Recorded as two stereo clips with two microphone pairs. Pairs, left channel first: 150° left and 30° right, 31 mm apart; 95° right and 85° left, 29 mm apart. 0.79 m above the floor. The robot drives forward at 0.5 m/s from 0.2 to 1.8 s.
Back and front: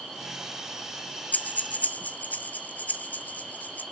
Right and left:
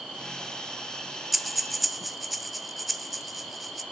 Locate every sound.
1.3 s breathing: 170° left, 0.5 m; by 3.8 s 175° left, 0.7 m